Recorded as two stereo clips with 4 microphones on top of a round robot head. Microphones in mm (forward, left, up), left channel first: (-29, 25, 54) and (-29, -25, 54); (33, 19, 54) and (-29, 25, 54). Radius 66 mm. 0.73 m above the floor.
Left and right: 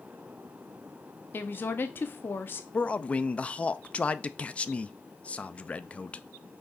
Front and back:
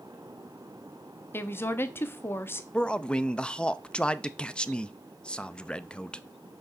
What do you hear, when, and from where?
1.3 s a woman speaking: 45° left, 1.0 m
2.7 s a man speaking: 55° left, 0.6 m